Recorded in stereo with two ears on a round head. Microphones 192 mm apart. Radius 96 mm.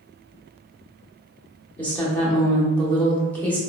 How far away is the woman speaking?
About 0.9 m.